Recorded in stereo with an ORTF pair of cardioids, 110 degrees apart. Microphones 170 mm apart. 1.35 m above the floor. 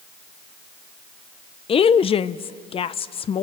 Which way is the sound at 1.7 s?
35° left.